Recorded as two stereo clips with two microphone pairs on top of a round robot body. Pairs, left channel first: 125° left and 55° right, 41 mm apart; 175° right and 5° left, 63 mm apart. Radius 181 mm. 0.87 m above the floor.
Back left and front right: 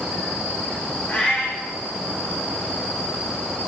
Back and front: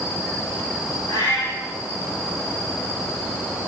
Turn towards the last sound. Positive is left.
turn(degrees=180)